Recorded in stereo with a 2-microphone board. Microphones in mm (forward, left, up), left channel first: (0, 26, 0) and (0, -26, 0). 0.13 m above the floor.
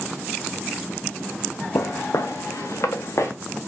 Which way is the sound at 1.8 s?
80° left.